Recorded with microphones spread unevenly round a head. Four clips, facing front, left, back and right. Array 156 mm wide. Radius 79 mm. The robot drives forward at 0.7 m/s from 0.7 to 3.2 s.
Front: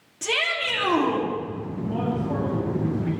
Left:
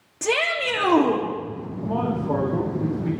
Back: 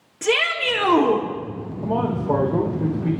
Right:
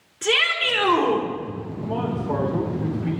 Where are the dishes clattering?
No dishes clattering in this recording.